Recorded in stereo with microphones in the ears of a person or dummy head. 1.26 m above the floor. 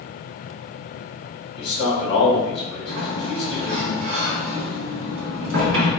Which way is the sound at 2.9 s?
70° right (ahead or behind).